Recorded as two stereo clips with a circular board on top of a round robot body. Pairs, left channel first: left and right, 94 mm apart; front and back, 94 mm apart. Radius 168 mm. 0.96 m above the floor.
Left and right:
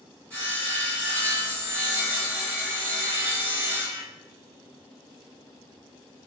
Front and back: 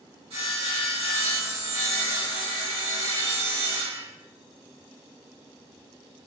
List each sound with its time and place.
0.3 s sawing: 165° left, 2 m